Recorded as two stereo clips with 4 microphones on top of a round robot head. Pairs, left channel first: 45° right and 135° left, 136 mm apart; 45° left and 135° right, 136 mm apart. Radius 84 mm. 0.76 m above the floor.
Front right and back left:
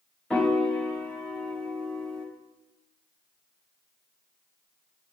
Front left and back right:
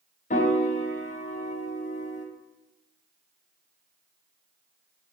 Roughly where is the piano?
Ahead left.